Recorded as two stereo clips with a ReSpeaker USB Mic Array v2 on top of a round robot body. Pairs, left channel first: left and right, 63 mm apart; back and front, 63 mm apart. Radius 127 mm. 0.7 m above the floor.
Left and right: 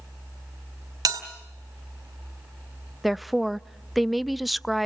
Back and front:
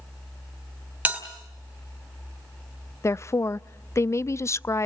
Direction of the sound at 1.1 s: 65° right.